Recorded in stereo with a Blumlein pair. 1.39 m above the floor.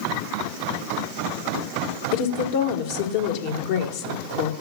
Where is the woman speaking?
50° left, 1.6 m.